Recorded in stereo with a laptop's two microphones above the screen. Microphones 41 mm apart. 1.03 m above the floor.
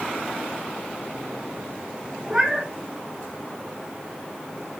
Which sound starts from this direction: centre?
A cat meowing, at 2.3 s.